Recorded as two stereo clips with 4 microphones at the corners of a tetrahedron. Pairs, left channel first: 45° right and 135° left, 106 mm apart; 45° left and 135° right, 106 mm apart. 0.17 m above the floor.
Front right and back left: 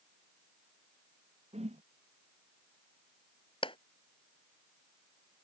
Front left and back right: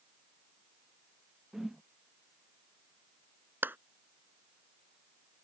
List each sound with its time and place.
1.5 s a whoosh: 140° left
3.6 s a clap: 65° right